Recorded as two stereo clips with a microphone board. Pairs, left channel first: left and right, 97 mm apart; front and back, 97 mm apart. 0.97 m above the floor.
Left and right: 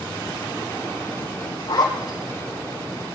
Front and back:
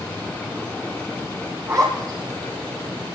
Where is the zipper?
135° left, 8 m.